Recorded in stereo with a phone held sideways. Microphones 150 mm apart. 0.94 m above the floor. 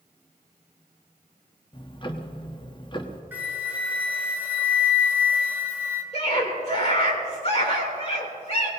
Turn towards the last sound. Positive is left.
turn(degrees=45)  # may be behind; listen again after turning